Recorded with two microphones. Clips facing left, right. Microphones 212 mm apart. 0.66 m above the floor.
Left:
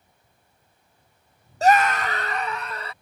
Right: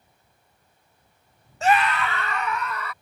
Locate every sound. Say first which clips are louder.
1.6 s a scream: left 3 dB; 35° left (ahead or behind); by 2.9 s 30° left (ahead or behind)